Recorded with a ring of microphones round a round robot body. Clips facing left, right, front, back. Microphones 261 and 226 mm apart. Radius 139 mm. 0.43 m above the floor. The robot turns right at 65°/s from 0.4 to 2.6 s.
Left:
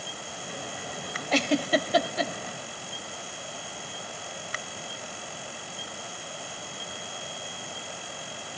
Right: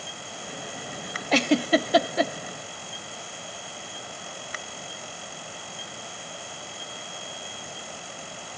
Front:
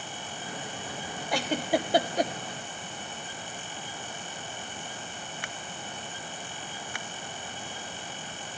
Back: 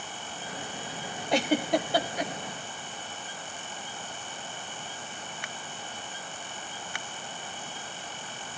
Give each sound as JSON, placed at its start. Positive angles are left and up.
{"t": 1.3, "sound": "a giggle", "azimuth_deg": -115, "distance_m": 0.6}